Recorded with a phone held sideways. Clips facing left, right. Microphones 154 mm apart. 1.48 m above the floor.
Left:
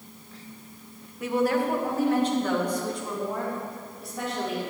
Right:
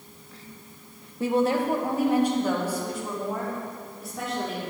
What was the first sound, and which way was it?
A woman speaking, 30° right (ahead or behind).